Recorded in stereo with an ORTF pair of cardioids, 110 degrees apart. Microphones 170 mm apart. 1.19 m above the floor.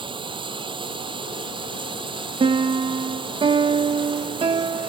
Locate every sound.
0.0 s running water: 30° right
2.4 s a piano: 30° right